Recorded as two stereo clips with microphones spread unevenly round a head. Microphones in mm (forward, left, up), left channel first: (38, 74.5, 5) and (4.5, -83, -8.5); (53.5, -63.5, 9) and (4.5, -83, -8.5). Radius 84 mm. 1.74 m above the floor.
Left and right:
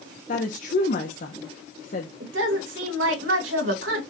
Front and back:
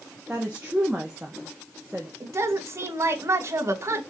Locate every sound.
0.3 s a woman speaking: 115° left, 1.3 m
2.2 s a woman speaking: 125° right, 3 m